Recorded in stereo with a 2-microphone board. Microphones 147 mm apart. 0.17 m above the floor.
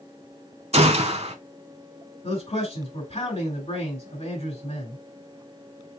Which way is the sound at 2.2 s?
50° left (ahead or behind).